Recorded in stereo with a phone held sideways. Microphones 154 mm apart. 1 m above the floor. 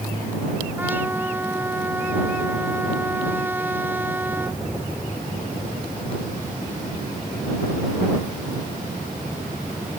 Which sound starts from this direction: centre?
A trumpet, at 0.8 s.